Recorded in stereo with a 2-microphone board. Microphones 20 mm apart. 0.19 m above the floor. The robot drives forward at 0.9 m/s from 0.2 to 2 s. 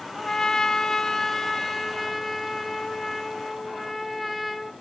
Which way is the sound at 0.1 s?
35° left (ahead or behind).